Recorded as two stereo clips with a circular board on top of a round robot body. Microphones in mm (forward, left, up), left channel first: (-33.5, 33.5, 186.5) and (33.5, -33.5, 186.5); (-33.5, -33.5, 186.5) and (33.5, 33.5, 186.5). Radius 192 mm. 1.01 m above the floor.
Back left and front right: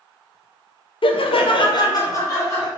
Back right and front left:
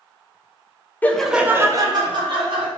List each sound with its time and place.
1.0 s laughter: 155° left, 0.6 m; by 2.7 s 70° left, 1.1 m